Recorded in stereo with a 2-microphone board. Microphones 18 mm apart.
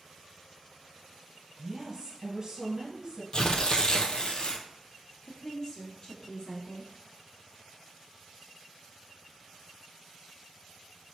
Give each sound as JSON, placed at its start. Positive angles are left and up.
{"t": 1.6, "sound": "a woman speaking", "side_deg": -25, "distance_m": 2.0}
{"t": 3.3, "sound": "tearing paper", "side_deg": 50, "distance_m": 0.6}
{"t": 5.2, "sound": "a woman speaking", "side_deg": 45, "distance_m": 1.9}